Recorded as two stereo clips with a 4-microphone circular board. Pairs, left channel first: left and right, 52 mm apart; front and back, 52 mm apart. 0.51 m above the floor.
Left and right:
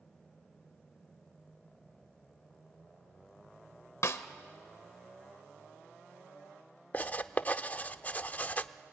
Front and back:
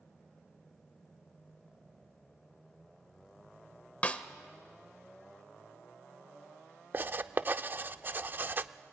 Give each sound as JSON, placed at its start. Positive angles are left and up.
{"t": 4.0, "sound": "a snare drum", "azimuth_deg": 60, "distance_m": 1.0}
{"t": 6.9, "sound": "writing", "azimuth_deg": 140, "distance_m": 0.5}